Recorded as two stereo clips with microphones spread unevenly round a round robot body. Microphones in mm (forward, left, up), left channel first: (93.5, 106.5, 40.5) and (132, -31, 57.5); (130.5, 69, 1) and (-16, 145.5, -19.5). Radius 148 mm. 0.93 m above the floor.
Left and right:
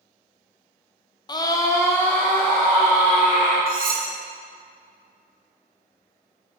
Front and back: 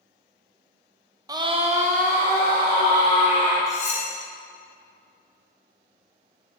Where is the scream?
115° left, 0.6 m; by 3.6 s 165° right, 1.8 m.